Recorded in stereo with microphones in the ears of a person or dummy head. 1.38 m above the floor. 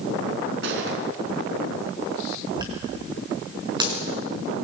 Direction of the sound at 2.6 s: 25° right (ahead or behind).